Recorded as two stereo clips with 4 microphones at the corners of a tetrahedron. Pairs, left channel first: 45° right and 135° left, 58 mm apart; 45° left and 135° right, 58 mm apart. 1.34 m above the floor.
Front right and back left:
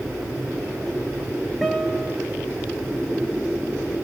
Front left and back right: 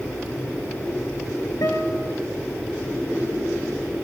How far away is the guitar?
About 3 m.